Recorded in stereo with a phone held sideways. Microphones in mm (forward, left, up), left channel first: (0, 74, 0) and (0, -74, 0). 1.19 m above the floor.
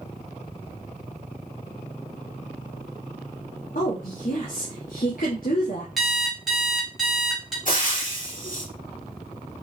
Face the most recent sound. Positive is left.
turn(degrees=65)  # may be behind; listen again after turning